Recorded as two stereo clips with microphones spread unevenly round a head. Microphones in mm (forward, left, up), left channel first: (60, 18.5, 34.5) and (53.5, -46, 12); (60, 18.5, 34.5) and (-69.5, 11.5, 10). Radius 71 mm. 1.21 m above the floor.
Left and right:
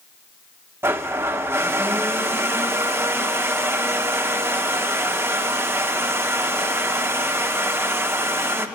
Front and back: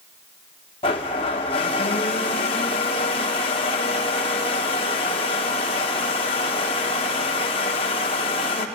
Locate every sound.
0.8 s a blender: 35° right, 1.0 m